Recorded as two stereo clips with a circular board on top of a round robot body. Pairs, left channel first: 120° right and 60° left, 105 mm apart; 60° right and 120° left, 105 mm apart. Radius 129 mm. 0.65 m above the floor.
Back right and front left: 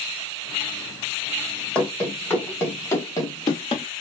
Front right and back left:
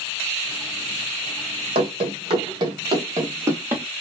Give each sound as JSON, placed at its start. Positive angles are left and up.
{"t": 1.8, "sound": "running footsteps", "azimuth_deg": 160, "distance_m": 1.9}